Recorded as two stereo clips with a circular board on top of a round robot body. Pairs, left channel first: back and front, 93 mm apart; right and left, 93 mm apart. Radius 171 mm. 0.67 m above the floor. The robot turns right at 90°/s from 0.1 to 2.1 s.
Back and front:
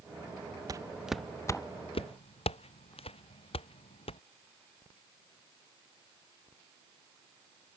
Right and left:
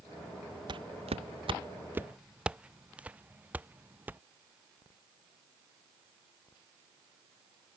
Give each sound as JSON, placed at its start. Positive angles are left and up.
{"t": 0.7, "sound": "footsteps", "azimuth_deg": 50}